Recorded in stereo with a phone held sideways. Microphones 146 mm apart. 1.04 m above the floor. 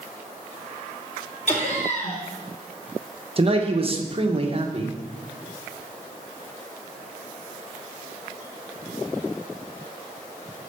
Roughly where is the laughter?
Left.